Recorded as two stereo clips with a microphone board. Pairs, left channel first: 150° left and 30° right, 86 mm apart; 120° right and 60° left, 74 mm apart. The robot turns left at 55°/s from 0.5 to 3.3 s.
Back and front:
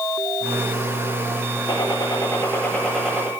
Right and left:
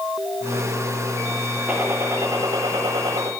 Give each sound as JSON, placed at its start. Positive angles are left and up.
{"t": 1.7, "sound": "a gunshot", "azimuth_deg": 130, "distance_m": 8.5}